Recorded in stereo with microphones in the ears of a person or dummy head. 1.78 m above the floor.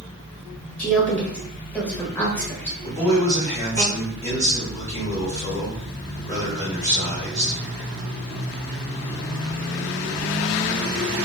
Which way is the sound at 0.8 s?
10° left (ahead or behind).